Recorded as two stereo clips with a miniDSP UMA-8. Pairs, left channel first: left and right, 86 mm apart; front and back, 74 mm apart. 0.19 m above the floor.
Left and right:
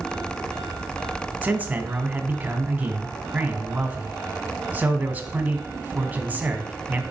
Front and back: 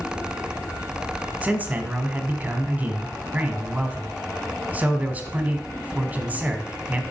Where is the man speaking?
140° right, 1.5 m.